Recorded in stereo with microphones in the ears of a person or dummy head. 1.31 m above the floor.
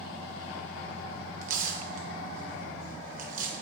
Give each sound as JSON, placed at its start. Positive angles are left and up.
{"t": 1.4, "sound": "tearing paper", "side_deg": -45, "distance_m": 0.9}